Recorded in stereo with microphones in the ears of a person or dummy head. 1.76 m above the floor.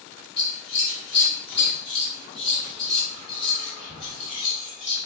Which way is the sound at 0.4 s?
5° right (ahead or behind).